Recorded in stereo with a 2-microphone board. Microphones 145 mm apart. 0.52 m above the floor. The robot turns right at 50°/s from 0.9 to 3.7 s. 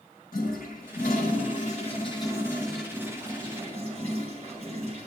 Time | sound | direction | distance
0.3 | a toilet flushing | 85° left | 5 m